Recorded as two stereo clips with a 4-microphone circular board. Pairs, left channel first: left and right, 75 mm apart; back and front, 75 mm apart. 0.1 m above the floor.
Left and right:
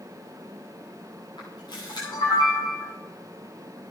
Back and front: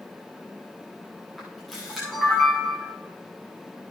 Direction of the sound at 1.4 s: 90° left.